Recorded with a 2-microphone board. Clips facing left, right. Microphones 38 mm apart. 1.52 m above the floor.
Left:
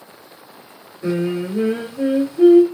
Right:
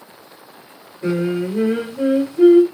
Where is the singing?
35° right (ahead or behind), 2 m.